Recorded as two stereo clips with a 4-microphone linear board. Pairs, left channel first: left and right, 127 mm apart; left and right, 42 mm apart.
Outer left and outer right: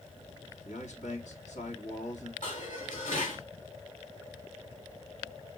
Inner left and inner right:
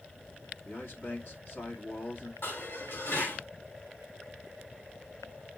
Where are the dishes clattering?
75° left (ahead or behind), 4.5 m.